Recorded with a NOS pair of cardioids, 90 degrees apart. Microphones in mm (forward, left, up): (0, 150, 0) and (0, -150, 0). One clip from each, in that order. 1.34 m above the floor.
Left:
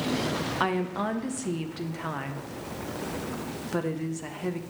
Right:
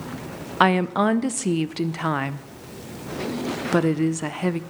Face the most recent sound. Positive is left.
turn(degrees=-40)